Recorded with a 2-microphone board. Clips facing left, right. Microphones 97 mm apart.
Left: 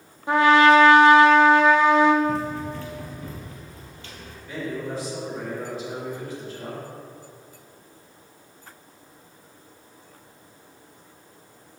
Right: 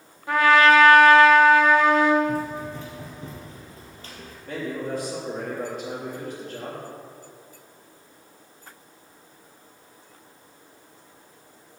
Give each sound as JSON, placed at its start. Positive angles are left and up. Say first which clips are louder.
{"t": 0.3, "sound": "a trumpet", "louder": "left 1 dB", "side_deg": 20, "distance_m": 0.9}
{"t": 2.2, "sound": "running footsteps", "louder": "left 1 dB", "side_deg": -10, "distance_m": 1.9}
{"t": 4.5, "sound": "a man speaking", "louder": "right 1 dB", "side_deg": -55, "distance_m": 3.0}